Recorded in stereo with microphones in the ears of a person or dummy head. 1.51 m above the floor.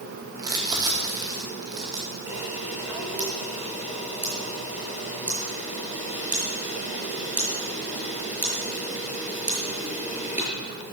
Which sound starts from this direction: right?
Crumpling, at 0.4 s.